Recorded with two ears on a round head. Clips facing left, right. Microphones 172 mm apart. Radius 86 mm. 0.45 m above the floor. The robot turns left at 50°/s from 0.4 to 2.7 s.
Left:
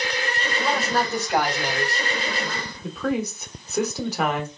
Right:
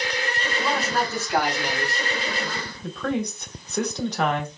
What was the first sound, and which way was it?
A man speaking, 165° right.